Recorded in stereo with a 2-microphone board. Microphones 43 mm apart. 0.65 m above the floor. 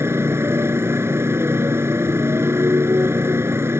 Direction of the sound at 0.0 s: 80° right.